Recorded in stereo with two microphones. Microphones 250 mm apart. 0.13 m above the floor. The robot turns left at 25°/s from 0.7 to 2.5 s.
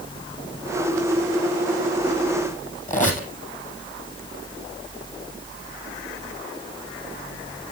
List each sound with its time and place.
2.9 s a squeak: 30° left (ahead or behind), 2.5 m